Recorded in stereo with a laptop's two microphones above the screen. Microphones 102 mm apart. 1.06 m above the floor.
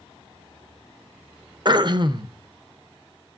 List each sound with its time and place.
1.6 s throat clearing: 45° right (ahead or behind), 0.5 m